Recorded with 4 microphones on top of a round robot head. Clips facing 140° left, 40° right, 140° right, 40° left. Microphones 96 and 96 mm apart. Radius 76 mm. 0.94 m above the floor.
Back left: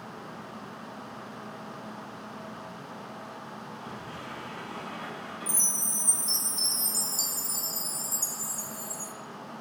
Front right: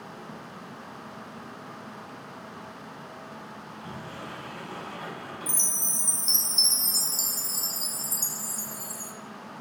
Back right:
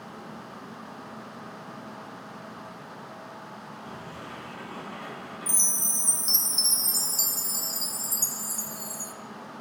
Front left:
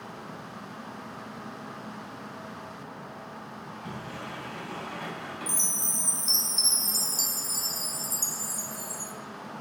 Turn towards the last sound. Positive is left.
turn(degrees=-105)